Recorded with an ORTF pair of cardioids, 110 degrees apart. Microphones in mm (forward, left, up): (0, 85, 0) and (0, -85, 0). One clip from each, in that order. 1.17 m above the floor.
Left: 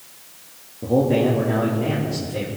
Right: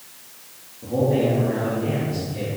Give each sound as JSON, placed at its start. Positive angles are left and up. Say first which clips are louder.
{"t": 0.8, "sound": "a man speaking", "louder": "left 2 dB", "azimuth_deg": 60, "distance_m": 2.0}